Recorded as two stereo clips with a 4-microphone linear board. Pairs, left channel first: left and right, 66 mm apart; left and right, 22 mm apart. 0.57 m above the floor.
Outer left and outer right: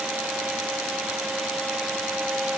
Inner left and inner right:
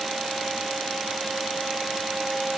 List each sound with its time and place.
Only background noise.